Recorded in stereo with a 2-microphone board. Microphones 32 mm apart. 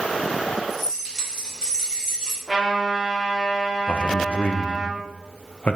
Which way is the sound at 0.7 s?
5° right (ahead or behind).